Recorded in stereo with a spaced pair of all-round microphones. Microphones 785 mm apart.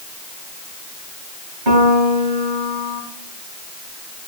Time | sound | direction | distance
1.7 | a piano | 75° right (ahead or behind) | 3 m